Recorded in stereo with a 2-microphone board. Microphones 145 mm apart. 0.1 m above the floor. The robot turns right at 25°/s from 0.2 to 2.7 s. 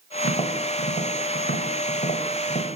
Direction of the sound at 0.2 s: 55° left (ahead or behind).